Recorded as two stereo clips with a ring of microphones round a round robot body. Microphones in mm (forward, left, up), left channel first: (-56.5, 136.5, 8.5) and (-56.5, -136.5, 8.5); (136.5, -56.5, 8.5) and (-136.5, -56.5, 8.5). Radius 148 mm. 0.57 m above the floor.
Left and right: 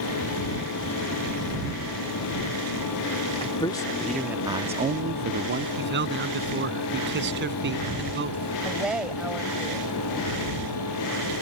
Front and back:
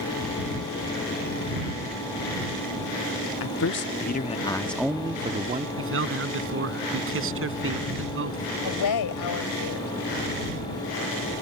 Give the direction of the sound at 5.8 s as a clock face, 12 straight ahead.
5 o'clock.